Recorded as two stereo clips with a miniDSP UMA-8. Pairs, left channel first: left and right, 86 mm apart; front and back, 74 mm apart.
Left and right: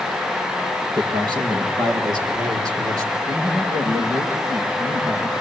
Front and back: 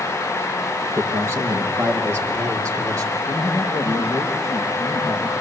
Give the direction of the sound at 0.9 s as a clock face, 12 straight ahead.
4 o'clock.